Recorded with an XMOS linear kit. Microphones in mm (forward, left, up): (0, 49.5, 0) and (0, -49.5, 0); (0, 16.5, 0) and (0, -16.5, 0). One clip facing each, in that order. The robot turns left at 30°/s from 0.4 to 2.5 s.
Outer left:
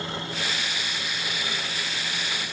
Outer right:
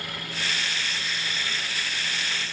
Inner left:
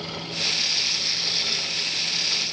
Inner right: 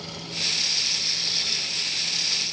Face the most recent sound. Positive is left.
No sound to turn to.